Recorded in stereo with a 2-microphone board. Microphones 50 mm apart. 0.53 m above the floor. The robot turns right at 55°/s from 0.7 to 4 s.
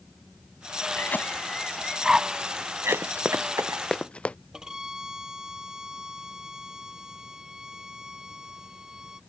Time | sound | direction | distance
1.0 | a cough | 50° left (ahead or behind) | ?
2.9 | running footsteps | 50° right (ahead or behind) | ?
4.5 | a violin | 10° right (ahead or behind) | ?